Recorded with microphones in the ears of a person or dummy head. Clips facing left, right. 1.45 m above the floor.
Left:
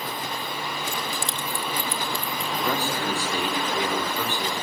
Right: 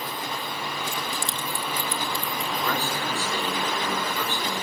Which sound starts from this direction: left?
Keys jangling, at 0.9 s.